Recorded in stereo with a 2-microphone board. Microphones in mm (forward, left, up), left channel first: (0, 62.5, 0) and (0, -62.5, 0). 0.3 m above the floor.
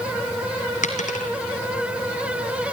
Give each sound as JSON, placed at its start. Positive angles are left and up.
{"t": 0.8, "sound": "a dropped coin", "side_deg": 85, "distance_m": 2.0}